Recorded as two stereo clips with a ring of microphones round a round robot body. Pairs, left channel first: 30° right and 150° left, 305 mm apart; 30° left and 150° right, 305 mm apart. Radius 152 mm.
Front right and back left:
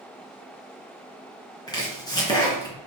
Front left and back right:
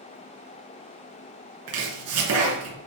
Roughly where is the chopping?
Right.